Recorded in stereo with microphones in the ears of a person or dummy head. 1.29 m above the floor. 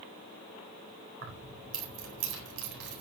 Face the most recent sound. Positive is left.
turn(degrees=-70)  # may be behind; listen again after turning